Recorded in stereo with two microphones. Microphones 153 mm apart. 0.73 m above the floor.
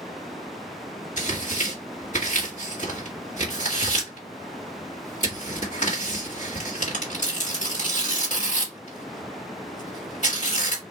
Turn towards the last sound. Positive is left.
turn(degrees=55)  # may be behind; listen again after turning